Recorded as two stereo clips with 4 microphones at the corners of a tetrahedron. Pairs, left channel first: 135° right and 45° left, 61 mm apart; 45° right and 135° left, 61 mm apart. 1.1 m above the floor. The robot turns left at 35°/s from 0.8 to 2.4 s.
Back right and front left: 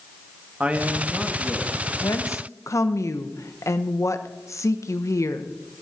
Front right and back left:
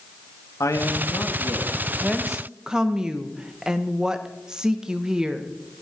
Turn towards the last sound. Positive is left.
turn(degrees=-150)